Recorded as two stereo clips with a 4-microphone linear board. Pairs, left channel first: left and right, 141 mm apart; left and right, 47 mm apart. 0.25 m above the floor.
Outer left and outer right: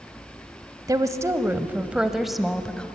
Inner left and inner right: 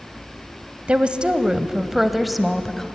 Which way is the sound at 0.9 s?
25° right (ahead or behind).